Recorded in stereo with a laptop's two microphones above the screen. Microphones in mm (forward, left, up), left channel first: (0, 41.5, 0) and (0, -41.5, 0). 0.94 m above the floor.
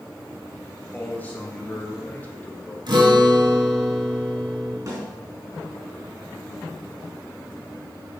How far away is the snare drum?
About 4 m.